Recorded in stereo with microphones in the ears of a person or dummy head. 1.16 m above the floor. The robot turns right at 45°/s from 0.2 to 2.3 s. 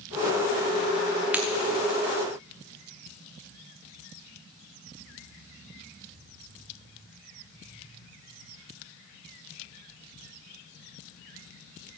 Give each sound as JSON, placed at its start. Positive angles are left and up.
{"t": 1.3, "sound": "breaking glass", "side_deg": -10, "distance_m": 0.8}